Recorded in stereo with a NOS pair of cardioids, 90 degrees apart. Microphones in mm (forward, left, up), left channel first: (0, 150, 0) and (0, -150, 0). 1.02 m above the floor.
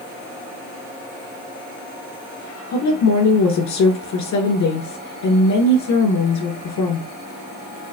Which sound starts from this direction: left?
A woman speaking, at 2.7 s.